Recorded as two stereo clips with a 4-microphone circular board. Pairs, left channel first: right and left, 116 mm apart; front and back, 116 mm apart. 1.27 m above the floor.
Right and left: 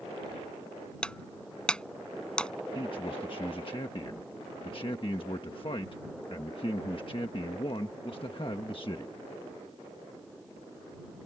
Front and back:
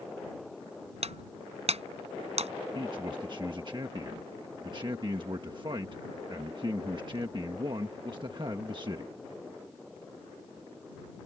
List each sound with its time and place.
1.0 s breaking glass: 170° right
2.8 s a man speaking: 135° right